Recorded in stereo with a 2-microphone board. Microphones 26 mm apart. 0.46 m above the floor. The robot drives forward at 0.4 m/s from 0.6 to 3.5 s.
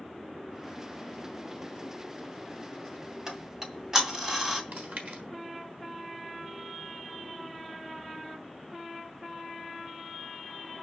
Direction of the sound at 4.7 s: 75° right (ahead or behind).